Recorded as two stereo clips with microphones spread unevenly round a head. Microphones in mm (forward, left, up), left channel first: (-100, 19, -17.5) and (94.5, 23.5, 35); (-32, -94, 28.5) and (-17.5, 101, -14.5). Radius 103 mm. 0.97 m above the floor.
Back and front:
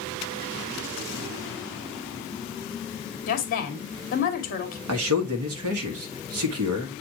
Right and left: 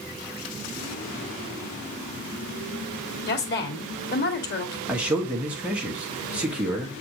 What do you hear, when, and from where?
3.3 s a woman speaking: 135° right, 2 m
4.9 s a man speaking: 5° left, 1.6 m